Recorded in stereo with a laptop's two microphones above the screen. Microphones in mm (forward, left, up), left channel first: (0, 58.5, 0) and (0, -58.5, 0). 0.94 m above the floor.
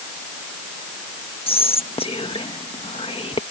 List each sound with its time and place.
1.5 s whispering: 55° left (ahead or behind)